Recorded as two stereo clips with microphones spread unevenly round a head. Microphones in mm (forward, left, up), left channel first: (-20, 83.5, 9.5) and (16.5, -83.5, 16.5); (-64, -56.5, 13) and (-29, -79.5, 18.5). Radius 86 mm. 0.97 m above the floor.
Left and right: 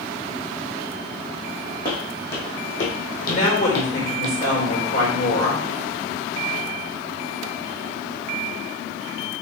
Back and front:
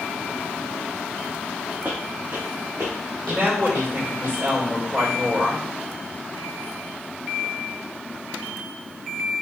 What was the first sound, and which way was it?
Footsteps, 40° left.